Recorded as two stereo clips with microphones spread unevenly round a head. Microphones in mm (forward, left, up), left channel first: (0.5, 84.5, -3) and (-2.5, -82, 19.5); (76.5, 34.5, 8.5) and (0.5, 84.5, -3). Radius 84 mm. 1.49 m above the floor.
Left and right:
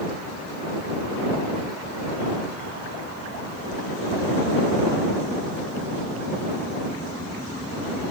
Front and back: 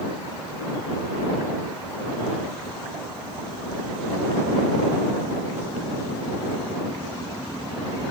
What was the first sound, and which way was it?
Only background noise.